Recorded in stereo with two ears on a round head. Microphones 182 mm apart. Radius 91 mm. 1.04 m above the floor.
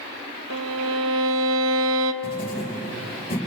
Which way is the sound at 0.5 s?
70° right (ahead or behind).